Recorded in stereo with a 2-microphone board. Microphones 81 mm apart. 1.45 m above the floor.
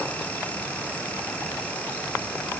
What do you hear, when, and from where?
Only background noise.